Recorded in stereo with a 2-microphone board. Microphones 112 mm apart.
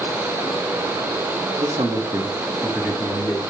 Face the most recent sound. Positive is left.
turn(degrees=5)  # may be behind; listen again after turning